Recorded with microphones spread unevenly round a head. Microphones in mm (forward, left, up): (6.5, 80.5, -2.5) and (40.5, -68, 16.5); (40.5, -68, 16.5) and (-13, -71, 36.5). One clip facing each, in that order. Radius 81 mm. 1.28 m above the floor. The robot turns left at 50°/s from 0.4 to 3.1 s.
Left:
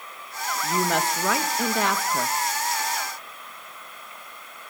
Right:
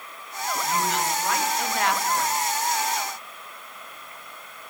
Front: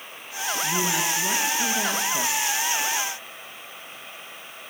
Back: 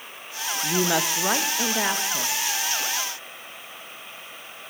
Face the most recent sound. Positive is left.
turn(degrees=45)